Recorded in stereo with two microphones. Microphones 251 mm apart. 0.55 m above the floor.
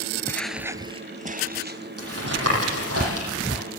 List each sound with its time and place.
0.3 s footsteps: 10° left (ahead or behind), 0.5 m; by 3.0 s 50° right (ahead or behind), 1.6 m
2.0 s tapping: 65° right (ahead or behind), 10 m